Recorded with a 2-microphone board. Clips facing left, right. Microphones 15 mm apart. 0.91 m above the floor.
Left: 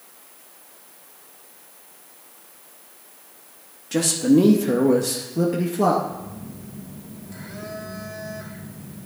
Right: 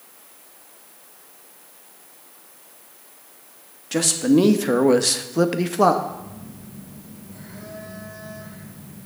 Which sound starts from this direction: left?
A phone buzzing, at 6.0 s.